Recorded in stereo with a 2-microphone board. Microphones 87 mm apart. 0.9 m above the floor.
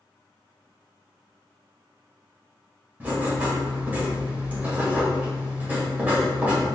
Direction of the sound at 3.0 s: 20° right (ahead or behind).